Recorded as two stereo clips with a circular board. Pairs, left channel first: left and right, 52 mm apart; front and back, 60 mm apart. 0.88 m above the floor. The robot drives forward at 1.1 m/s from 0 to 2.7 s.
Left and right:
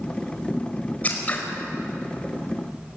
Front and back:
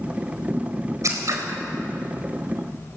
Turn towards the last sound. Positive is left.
turn(degrees=160)